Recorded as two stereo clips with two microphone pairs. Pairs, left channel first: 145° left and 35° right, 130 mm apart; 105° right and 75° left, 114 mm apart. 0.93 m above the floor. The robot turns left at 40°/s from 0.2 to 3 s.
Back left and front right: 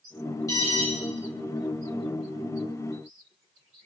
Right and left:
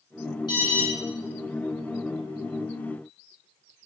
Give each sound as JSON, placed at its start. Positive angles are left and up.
{"t": 0.5, "sound": "an alarm", "azimuth_deg": -150, "distance_m": 4.0}